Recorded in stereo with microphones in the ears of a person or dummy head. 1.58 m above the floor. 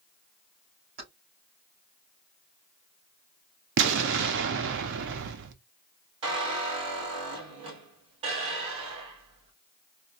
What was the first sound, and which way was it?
Keys jangling, 50° right (ahead or behind).